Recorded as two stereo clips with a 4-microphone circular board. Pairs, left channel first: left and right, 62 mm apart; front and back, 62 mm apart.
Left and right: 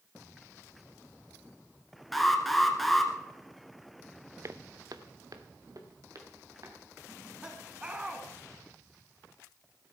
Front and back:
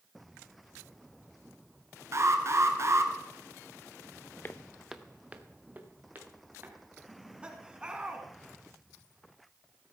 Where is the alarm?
Straight behind, 1.5 m.